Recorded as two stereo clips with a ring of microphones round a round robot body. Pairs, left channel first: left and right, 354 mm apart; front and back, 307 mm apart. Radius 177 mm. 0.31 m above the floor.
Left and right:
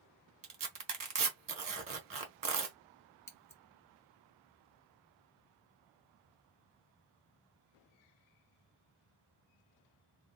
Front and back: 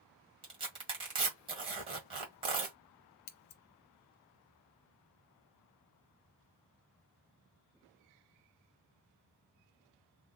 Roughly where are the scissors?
Ahead.